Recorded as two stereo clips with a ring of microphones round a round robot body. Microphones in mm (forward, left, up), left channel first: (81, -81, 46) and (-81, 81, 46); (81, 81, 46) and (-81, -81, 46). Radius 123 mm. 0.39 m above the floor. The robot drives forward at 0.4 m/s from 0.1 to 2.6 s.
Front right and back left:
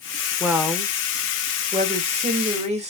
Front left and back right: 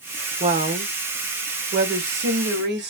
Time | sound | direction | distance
0.4 | a woman speaking | 145° right | 0.9 m